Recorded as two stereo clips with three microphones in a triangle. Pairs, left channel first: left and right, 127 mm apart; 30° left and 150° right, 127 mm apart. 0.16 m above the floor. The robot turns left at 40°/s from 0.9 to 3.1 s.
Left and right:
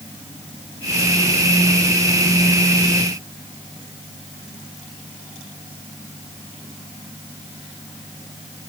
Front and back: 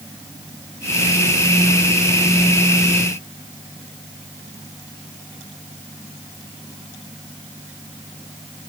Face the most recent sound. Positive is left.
No sound to turn to.